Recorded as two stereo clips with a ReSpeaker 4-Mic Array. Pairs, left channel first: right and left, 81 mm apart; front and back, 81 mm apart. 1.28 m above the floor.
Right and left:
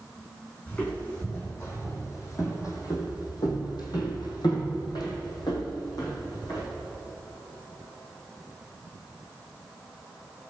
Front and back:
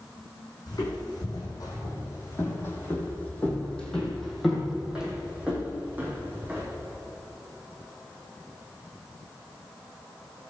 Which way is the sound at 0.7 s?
25° right.